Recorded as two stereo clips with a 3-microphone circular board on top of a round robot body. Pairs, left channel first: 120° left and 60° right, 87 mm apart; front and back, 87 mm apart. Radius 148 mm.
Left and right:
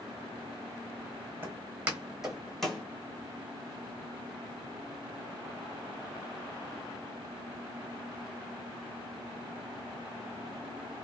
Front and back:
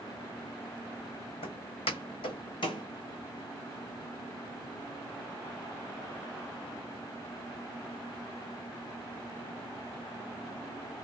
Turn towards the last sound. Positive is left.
turn(degrees=40)